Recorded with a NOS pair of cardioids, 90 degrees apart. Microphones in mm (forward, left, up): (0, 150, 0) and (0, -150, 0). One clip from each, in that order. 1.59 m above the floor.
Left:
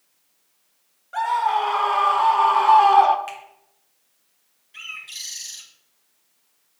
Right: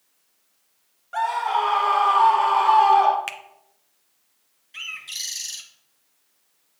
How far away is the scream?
About 1.8 m.